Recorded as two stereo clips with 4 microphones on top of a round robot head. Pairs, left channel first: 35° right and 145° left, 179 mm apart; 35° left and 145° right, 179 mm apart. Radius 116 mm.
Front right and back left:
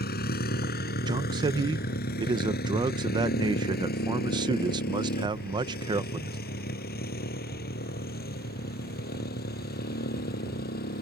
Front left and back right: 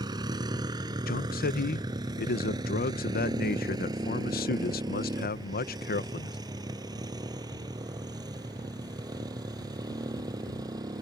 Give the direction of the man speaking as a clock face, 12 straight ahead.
9 o'clock.